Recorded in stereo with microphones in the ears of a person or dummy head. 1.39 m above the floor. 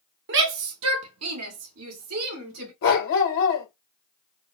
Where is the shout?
55° right (ahead or behind), 0.7 m; by 2.7 s 80° right, 2 m.